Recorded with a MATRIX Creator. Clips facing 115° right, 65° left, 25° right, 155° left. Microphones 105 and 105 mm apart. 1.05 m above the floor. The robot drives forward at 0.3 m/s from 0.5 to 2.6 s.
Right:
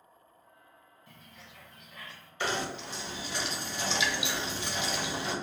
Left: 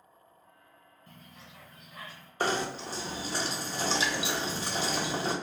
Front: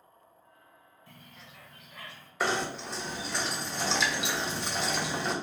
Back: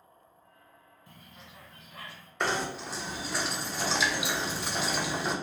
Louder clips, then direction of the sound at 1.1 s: Left 2 dB, even; 95° left.